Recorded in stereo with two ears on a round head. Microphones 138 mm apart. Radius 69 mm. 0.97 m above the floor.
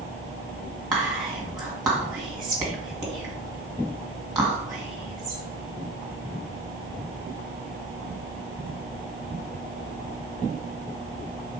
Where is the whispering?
Centre (ahead or behind), 1.8 m.